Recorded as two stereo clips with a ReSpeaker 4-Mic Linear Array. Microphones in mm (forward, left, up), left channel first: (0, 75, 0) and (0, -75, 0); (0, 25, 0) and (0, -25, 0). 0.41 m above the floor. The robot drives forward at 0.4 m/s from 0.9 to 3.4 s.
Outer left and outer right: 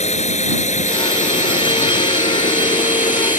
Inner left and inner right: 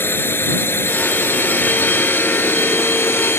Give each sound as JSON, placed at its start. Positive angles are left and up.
{"t": 0.0, "sound": "a drone", "side_deg": 50}